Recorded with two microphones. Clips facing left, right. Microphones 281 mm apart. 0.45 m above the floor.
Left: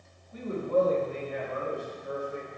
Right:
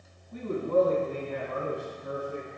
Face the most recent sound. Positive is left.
turn(degrees=-65)  # may be behind; listen again after turning